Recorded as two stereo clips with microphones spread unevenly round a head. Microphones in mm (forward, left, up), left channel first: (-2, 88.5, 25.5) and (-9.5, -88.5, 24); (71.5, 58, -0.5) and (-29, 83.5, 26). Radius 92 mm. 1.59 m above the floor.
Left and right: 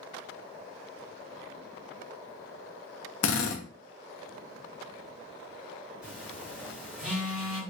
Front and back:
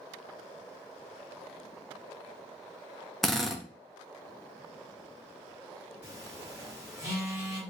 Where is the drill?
80° left, 0.6 m.